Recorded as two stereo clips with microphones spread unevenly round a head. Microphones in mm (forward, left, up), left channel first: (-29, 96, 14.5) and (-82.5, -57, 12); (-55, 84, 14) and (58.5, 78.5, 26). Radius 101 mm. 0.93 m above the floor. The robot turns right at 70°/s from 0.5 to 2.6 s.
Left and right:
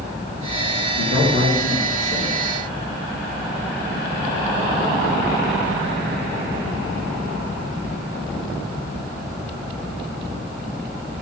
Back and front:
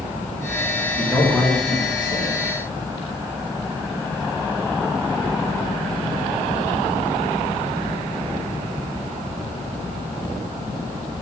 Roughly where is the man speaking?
Ahead left.